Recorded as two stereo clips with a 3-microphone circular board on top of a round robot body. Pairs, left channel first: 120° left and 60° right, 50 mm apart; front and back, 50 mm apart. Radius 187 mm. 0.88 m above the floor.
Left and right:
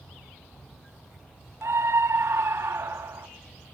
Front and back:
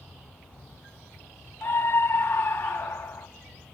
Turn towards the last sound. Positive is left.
turn(degrees=-35)